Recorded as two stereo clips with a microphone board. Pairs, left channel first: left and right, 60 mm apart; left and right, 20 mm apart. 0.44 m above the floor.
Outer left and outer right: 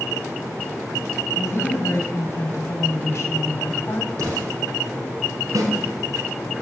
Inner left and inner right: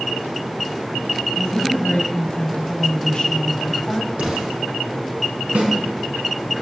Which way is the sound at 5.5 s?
70° right (ahead or behind).